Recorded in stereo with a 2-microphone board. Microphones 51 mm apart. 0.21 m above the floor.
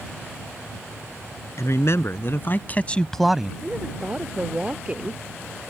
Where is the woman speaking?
25° right (ahead or behind).